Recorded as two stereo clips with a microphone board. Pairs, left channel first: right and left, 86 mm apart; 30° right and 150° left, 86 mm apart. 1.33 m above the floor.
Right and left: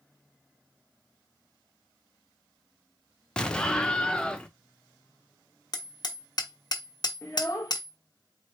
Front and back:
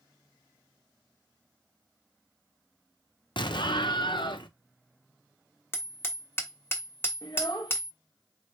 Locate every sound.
3.4 s an explosion: 10° right, 0.7 m
5.7 s hammering: 85° right, 0.9 m
7.2 s a child speaking: 40° right, 0.9 m